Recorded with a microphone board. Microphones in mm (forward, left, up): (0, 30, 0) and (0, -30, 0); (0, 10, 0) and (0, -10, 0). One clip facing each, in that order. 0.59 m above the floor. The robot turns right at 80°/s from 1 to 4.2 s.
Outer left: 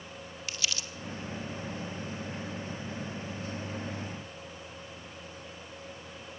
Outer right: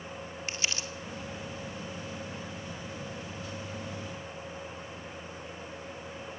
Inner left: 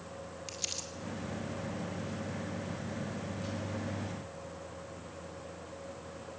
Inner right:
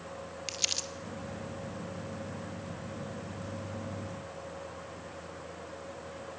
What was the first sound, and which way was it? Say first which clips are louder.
Crumpling: outer right 1 dB, inner right 7 dB; 35° right (ahead or behind).